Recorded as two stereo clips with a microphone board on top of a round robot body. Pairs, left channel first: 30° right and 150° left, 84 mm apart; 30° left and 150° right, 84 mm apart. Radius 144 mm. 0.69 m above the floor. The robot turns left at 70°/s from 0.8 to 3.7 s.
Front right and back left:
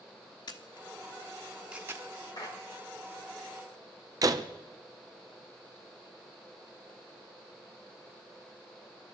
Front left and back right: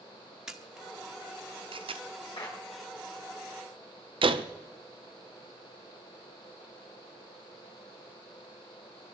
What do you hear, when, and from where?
0.5 s a camera shutter: 65° right, 1.1 m; by 2.0 s 155° right, 1.1 m
2.4 s a clap: 10° left, 6.5 m; by 2.6 s 5° right, 6.5 m
4.2 s a door slam: 165° right, 0.9 m